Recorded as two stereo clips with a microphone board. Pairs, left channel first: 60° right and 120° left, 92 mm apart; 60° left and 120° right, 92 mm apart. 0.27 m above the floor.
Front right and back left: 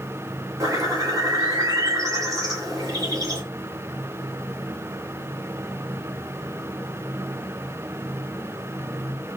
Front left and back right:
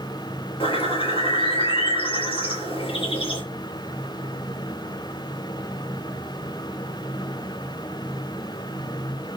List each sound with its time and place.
0.6 s a bird: 65° left, 6 m